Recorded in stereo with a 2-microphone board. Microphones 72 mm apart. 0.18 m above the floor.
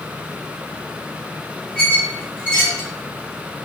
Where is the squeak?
20° left (ahead or behind), 1.4 m.